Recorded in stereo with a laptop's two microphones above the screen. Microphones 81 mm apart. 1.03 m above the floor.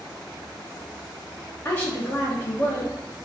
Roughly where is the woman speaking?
Left.